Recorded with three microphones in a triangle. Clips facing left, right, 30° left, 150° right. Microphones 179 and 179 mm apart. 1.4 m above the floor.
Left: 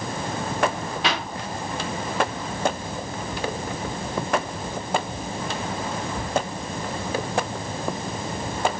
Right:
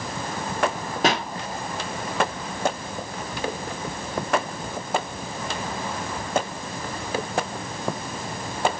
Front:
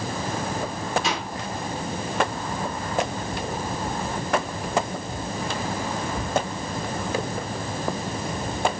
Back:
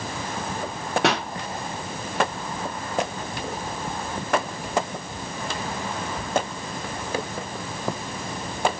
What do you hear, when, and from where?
1.0 s a pop: 135° right, 1.8 m